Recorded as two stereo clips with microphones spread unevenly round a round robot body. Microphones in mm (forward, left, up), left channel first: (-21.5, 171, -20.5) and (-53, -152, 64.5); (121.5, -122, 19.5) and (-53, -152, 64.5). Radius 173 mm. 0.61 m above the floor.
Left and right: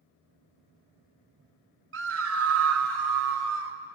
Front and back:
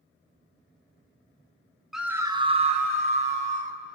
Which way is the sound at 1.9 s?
50° right.